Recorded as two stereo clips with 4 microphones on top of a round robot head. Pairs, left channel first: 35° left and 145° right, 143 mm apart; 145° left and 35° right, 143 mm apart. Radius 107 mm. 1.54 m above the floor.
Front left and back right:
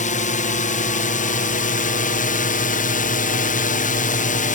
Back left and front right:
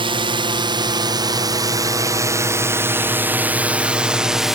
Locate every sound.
0.0 s a drone: 15° left; by 4.6 s 50° left